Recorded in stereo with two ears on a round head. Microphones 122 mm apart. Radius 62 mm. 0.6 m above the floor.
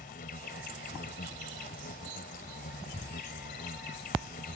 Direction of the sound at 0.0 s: 70° left (ahead or behind).